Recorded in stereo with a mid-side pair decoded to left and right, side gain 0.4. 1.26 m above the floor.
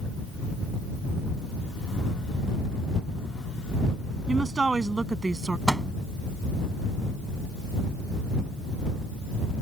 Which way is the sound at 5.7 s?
10° right.